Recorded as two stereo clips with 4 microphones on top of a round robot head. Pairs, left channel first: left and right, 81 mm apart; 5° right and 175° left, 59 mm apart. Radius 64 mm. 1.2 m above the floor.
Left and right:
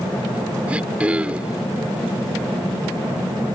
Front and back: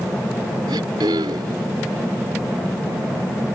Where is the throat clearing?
165° right.